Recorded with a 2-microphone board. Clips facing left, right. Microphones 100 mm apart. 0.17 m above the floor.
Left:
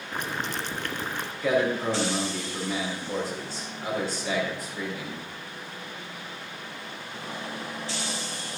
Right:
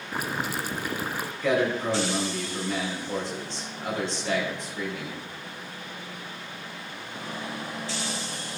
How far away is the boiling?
About 0.8 m.